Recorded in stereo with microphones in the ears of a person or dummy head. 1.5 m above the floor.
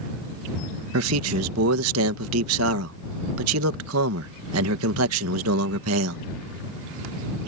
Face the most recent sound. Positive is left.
turn(degrees=-85)